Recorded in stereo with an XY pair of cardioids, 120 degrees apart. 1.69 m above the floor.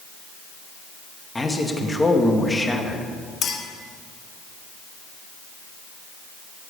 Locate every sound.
1.4 s a man speaking: 15° left, 2 m
3.4 s a clink: 55° left, 2.5 m